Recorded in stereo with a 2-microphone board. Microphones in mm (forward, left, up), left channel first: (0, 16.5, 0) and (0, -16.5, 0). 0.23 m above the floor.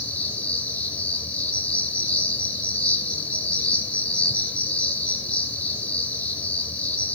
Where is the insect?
60° left (ahead or behind), 1.9 m.